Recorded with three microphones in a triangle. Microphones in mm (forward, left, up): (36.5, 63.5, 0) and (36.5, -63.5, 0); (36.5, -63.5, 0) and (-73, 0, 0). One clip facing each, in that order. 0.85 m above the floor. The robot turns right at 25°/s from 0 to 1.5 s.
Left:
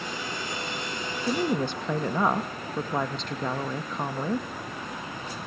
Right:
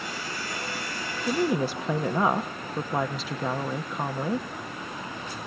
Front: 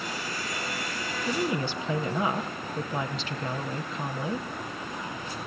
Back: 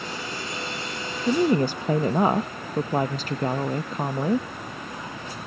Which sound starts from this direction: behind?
A woman speaking, at 1.3 s.